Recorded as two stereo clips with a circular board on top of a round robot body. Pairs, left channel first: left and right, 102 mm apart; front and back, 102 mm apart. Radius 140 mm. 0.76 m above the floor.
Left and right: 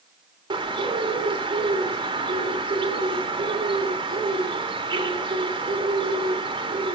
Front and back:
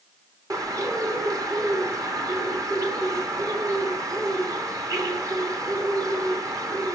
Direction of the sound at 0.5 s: 130° right.